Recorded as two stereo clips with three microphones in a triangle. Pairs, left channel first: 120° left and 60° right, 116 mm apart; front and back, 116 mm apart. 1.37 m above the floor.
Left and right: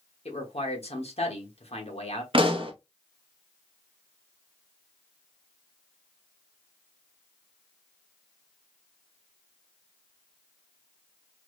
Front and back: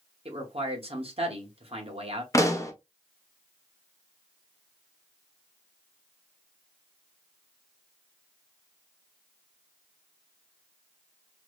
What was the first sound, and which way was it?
A man speaking, 150° left.